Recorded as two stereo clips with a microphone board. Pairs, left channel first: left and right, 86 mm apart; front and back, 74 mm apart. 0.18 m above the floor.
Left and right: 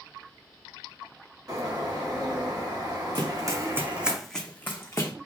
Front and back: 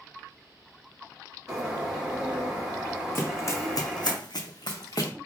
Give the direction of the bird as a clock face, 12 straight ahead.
3 o'clock.